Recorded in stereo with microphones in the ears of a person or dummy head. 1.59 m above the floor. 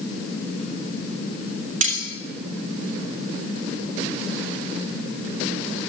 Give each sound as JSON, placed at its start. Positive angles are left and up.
{"t": 1.8, "sound": "cutlery clinking", "side_deg": -45, "distance_m": 3.0}